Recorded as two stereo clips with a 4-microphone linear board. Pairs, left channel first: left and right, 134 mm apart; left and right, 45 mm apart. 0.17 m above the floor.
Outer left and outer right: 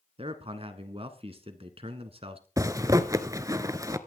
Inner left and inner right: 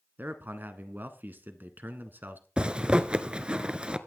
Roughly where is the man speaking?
Right.